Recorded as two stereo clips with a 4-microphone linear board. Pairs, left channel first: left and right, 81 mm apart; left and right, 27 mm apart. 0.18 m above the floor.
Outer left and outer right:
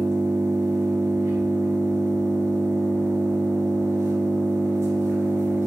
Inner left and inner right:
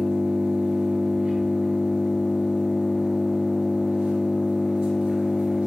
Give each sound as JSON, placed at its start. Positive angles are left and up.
{"t": 0.0, "sound": "an engine running", "side_deg": -40, "distance_m": 1.7}